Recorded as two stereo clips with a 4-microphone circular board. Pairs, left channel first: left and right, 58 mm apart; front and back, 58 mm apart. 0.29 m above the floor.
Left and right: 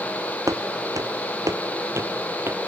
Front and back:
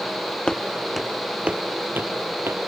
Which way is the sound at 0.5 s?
70° right.